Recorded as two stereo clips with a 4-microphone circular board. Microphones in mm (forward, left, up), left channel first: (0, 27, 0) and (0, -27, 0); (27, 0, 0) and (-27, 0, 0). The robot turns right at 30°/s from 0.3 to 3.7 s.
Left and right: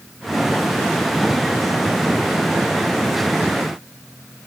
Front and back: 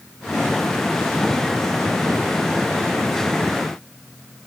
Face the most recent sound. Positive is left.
No sound to turn to.